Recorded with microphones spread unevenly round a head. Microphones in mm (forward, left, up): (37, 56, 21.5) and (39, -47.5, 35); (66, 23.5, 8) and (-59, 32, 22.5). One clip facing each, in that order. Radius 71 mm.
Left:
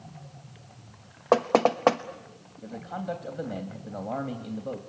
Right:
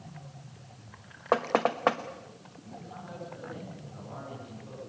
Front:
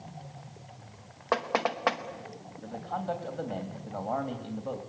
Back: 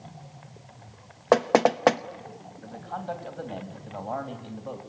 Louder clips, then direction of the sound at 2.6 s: Left 11 dB, front 1 dB; 80° left.